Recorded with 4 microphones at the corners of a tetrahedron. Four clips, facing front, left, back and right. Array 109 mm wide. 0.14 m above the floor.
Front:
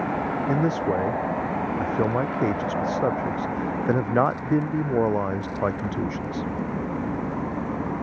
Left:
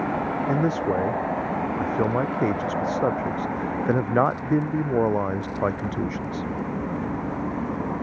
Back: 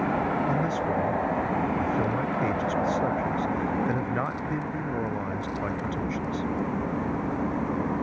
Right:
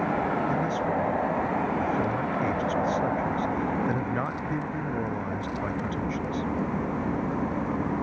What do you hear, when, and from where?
0.5 s a man speaking: 50° left